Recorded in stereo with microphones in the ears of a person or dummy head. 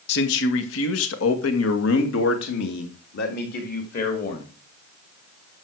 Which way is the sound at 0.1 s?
65° left (ahead or behind).